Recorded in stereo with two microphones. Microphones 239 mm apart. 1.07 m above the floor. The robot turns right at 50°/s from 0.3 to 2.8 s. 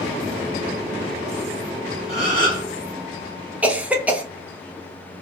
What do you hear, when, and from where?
2.1 s a gasp: 55° left (ahead or behind), 1.3 m; by 2.7 s 70° left (ahead or behind), 1.3 m
3.6 s a cough: 5° right (ahead or behind), 0.6 m